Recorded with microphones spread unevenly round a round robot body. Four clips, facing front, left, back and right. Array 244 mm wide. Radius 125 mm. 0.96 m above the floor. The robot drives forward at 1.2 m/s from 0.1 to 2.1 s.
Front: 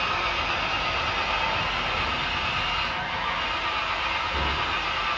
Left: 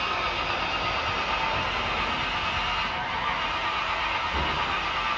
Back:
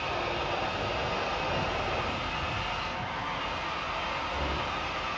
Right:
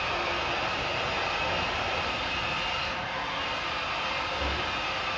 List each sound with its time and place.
0.0 s an engine running: 50° left, 6 m; by 5.2 s 75° left, 5 m